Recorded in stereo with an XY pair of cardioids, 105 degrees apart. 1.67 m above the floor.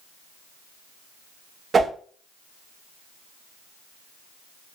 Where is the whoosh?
40° right, 0.5 m.